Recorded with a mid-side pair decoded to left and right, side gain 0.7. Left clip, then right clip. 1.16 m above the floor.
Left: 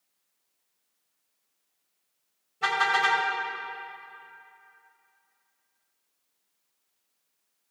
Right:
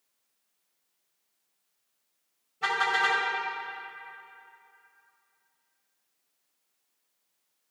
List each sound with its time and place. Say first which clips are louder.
2.6 s a car horn: left 2 dB; 10° left, 4 m